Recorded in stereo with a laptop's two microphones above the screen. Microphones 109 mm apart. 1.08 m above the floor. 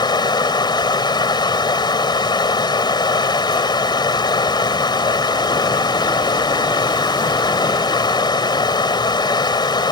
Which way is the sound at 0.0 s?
40° left (ahead or behind).